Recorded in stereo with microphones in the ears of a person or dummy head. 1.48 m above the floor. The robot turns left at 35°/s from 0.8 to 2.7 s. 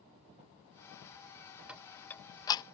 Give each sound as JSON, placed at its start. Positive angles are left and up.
{"t": 1.7, "sound": "ticking", "side_deg": -5}